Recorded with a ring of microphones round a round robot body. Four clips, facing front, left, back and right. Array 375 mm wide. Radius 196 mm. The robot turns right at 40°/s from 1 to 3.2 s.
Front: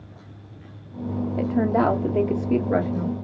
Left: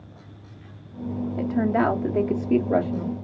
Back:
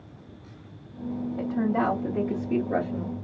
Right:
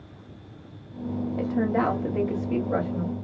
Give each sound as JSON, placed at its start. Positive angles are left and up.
{"t": 1.4, "sound": "a woman speaking", "azimuth_deg": 5, "distance_m": 0.9}